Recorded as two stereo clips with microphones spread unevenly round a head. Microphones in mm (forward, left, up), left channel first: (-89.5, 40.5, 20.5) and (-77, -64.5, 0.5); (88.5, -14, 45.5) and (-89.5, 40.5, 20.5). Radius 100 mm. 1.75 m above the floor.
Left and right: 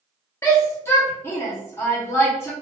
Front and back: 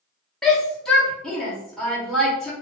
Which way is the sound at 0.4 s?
60° left.